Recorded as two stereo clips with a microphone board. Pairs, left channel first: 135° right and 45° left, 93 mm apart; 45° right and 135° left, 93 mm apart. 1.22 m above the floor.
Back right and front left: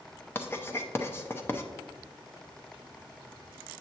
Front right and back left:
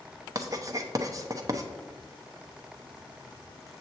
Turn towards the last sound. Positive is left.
turn(degrees=170)